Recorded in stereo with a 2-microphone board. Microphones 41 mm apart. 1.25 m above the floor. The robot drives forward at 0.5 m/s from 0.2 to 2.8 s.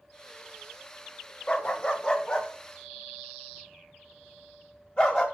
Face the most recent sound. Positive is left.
turn(degrees=20)  # may be behind; listen again after turning